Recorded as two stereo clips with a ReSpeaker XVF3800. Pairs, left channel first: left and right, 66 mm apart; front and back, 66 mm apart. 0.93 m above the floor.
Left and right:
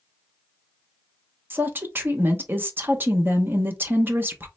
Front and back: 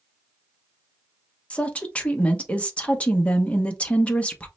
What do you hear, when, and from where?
1.5 s a woman speaking: 60° right, 0.7 m